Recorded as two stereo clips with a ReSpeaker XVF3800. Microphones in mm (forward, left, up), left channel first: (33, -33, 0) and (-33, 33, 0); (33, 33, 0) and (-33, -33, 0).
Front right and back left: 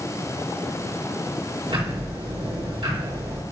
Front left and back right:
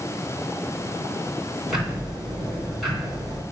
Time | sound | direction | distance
1.7 | ticking | 135° left | 3 m